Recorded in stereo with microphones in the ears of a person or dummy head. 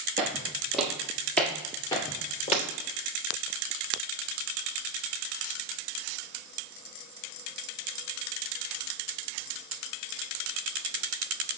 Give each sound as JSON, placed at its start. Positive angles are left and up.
{"t": 0.2, "sound": "footsteps", "side_deg": -20, "distance_m": 1.7}
{"t": 2.5, "sound": "breaking glass", "side_deg": -15, "distance_m": 1.3}